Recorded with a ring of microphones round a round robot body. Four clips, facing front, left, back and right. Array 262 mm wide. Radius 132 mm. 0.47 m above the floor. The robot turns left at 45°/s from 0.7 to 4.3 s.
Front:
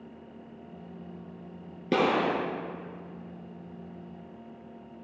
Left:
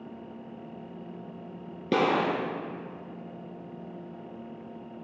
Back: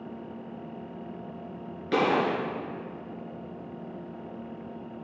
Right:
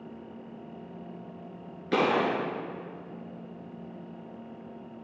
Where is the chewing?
I don't hear chewing.